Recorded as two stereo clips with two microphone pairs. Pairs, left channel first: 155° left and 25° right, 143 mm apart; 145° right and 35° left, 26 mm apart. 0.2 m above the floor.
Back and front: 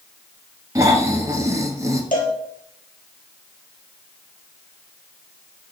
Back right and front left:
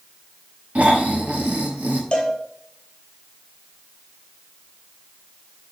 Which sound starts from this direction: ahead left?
Snoring, at 0.8 s.